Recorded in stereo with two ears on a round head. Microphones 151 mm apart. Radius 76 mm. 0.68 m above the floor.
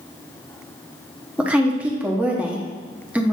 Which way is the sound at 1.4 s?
10° right (ahead or behind).